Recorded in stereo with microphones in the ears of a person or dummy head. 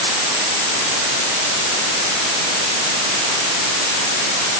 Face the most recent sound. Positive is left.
No sound to turn to.